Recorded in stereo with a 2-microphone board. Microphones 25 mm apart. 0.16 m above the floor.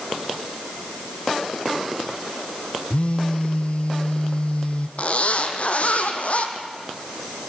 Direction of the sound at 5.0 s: 60° left (ahead or behind).